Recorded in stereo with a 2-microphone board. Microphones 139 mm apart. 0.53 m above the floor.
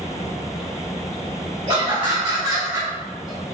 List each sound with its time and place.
1.7 s laughter: 45° right (ahead or behind), 1.7 m; by 3.5 s centre (ahead or behind), 1.4 m